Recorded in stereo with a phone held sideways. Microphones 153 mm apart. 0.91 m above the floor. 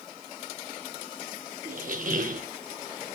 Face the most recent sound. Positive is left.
turn(degrees=-60)  # may be behind; listen again after turning